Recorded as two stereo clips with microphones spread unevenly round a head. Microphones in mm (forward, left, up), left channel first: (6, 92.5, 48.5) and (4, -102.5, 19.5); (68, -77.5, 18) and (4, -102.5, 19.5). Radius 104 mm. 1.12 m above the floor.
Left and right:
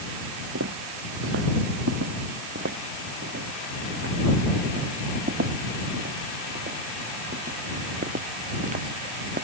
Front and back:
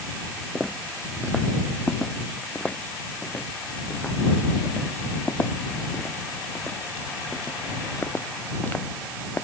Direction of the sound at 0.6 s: 65° right.